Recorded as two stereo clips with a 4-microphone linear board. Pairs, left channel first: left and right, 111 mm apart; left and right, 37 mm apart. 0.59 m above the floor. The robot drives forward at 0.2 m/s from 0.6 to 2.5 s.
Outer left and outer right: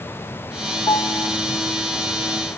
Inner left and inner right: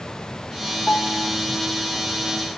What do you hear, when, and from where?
0.9 s a piano: 30° left (ahead or behind), 1.1 m